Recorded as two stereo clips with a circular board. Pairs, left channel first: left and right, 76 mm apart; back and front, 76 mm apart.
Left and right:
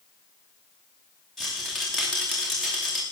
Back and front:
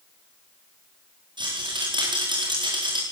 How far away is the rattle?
About 9.5 m.